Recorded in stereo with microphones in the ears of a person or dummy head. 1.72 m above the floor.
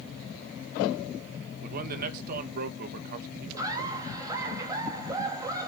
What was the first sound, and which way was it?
A man speaking, 50° right (ahead or behind).